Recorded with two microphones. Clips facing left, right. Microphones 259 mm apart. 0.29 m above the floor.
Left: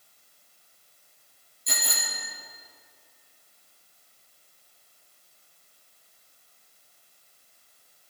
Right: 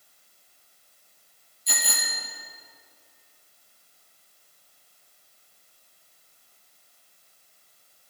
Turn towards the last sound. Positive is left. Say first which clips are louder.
# right 1 dB
turn(degrees=50)  # may be behind; listen again after turning